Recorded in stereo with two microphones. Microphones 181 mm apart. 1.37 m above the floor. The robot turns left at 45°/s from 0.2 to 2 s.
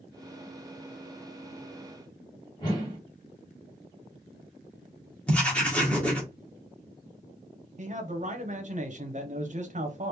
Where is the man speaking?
45° right (ahead or behind), 0.9 m.